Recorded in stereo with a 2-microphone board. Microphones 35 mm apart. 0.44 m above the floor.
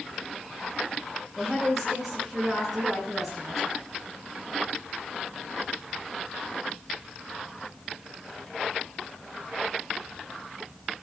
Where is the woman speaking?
Centre (ahead or behind), 8.5 m.